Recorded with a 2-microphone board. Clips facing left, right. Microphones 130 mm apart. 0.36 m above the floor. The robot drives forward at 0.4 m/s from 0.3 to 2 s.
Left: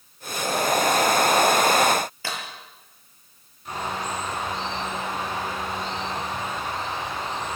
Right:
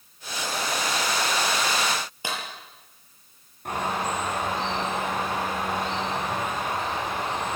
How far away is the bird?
About 8.5 m.